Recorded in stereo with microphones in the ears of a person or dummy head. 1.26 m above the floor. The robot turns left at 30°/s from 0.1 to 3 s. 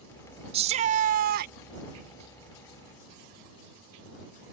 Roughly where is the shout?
Ahead right.